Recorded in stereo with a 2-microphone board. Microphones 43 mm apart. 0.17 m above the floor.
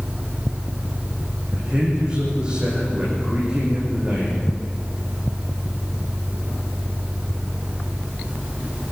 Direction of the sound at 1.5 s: 20° right (ahead or behind).